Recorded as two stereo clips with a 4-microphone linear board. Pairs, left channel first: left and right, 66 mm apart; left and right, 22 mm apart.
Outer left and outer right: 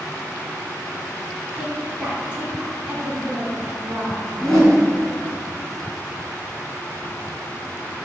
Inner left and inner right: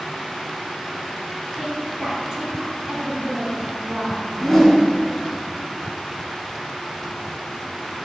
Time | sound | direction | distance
1.6 | a woman speaking | 20° right (ahead or behind) | 3 m
4.4 | a whoosh | 5° left (ahead or behind) | 2.5 m